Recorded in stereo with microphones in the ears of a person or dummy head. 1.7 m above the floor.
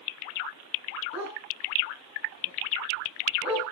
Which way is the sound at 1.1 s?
5° right (ahead or behind).